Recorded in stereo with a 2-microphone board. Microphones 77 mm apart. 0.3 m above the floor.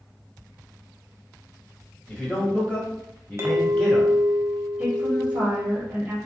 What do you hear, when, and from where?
2.1 s a man speaking: 15° left (ahead or behind), 1.5 m; by 4.1 s 10° left (ahead or behind), 1.4 m
3.4 s a clink: 40° right (ahead or behind), 0.6 m
4.8 s a woman speaking: 20° right (ahead or behind), 1.3 m